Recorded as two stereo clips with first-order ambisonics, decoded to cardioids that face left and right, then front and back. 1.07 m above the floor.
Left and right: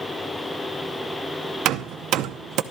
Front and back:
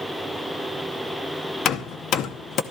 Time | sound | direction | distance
1.6 | hammering | 50° right | 0.7 m